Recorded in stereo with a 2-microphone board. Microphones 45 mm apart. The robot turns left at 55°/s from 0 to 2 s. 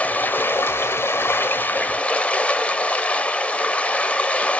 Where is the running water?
140° left, 1.1 m; by 4.6 s 30° left, 1.1 m.